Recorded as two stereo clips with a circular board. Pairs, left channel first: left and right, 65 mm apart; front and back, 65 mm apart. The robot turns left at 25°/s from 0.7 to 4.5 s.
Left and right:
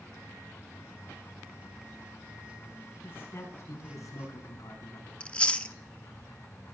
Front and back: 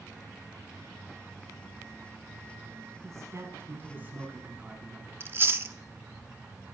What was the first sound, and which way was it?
A man speaking, 140° left.